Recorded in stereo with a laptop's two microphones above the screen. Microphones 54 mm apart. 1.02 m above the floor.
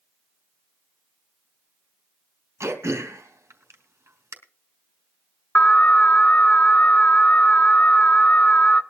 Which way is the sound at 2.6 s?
60° right (ahead or behind).